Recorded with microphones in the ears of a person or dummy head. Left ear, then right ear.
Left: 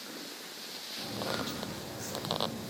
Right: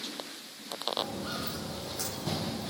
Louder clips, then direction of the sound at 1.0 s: Right 1 dB; 45° right (ahead or behind).